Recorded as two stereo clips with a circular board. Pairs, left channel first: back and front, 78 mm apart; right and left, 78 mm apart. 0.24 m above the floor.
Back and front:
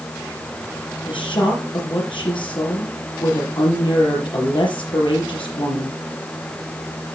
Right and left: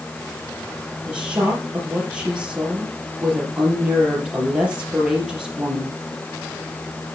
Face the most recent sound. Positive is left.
turn(degrees=170)